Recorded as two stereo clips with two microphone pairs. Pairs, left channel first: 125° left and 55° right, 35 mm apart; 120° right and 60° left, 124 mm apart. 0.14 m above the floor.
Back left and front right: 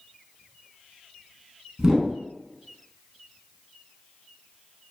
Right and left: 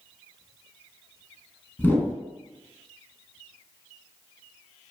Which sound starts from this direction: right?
A whoosh, at 1.8 s.